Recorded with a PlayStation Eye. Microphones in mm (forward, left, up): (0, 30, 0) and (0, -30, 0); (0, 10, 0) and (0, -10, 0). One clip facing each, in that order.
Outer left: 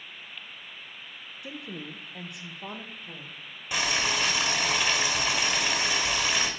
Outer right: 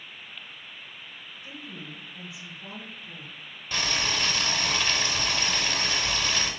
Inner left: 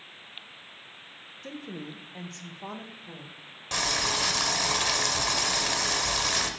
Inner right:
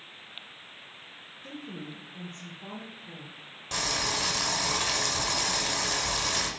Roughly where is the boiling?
Centre.